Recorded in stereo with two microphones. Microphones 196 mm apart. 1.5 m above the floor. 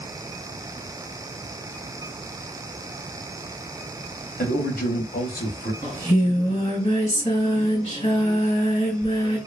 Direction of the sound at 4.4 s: 55° left (ahead or behind).